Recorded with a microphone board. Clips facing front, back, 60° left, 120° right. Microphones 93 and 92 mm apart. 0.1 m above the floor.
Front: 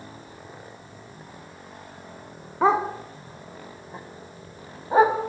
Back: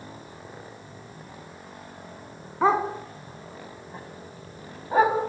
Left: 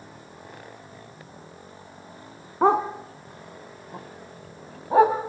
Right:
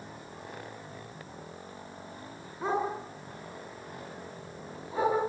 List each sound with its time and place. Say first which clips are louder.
2.6 s a dog barking: front 1 dB, left 10 dB; 75° left, 3 m; by 5.2 s 65° left, 6 m